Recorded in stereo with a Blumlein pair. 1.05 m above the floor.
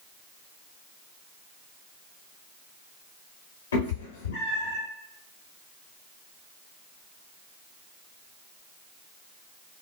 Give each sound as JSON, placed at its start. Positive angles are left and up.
{"t": 3.7, "sound": "a cat meowing", "azimuth_deg": 65, "distance_m": 1.1}